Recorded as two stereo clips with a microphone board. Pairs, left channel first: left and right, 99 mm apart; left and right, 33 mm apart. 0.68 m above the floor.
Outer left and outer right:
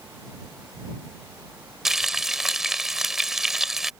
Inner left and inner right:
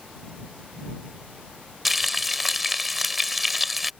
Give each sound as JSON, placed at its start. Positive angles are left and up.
{"t": 1.9, "sound": "frying", "side_deg": -5}